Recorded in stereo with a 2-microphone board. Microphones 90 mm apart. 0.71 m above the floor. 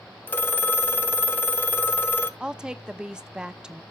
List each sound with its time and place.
0.3 s a phone ringing: 20° left (ahead or behind), 0.5 m
2.4 s a woman speaking: 10° right (ahead or behind), 0.7 m